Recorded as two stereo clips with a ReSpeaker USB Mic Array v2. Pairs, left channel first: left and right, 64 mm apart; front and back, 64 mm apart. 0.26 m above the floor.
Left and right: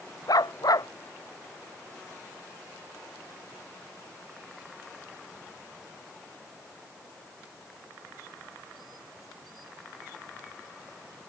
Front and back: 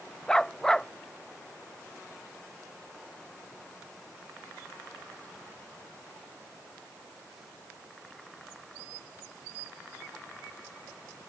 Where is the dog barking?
80° left.